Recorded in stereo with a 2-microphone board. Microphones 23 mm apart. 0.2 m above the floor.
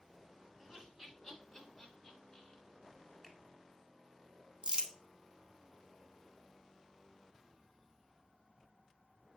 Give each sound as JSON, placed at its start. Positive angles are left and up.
{"t": 0.6, "sound": "laughter", "side_deg": -20, "distance_m": 1.8}
{"t": 3.2, "sound": "a finger snap", "side_deg": 15, "distance_m": 1.3}
{"t": 4.6, "sound": "crumpling", "side_deg": -40, "distance_m": 0.6}